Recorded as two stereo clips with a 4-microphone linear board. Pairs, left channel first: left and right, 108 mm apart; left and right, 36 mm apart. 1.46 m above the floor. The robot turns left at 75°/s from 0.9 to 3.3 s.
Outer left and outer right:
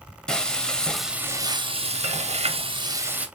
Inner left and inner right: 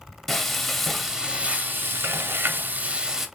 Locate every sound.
0.3 s frying: 5° left, 0.6 m; by 3.3 s 170° right, 0.6 m